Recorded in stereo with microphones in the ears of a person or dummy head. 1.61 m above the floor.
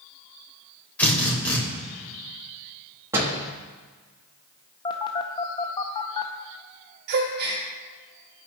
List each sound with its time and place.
1.0 s a drill: 10° left (ahead or behind), 2.5 m
3.1 s a door slam: 20° right (ahead or behind), 2.0 m
4.8 s a phone buzzing: 20° left (ahead or behind), 0.5 m
7.1 s a gasp: 60° right (ahead or behind), 1.3 m